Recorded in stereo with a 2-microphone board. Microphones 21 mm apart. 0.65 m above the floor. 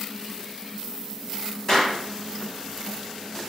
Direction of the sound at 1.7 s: 20° left (ahead or behind).